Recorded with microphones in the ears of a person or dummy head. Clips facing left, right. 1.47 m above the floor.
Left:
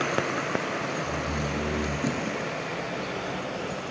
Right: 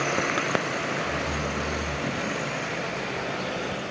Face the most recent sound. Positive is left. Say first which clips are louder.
# right 1 dB
turn(degrees=70)  # may be behind; listen again after turning